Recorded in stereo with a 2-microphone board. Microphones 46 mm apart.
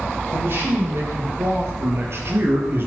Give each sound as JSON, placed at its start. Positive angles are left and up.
{"t": 0.3, "sound": "a man speaking", "side_deg": -60, "distance_m": 5.0}